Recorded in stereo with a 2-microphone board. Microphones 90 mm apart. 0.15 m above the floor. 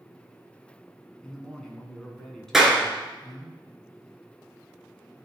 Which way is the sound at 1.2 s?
5° left (ahead or behind).